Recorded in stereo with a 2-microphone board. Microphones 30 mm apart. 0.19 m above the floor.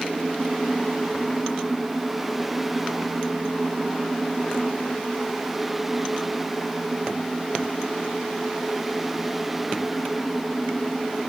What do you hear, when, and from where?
Only background noise.